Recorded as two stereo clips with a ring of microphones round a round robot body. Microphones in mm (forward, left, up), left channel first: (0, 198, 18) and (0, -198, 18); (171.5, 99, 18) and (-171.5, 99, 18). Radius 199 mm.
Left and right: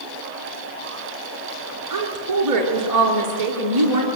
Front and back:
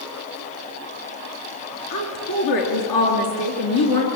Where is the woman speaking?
45° right, 6.5 m.